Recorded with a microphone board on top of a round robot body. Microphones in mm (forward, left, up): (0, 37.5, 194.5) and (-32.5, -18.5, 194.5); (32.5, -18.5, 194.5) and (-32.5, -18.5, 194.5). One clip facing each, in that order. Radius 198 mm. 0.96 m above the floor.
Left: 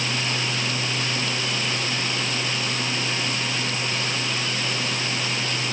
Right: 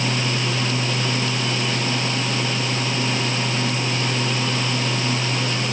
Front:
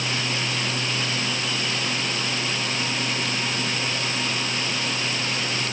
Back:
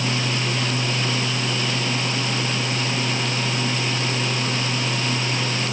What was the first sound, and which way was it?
Only background noise.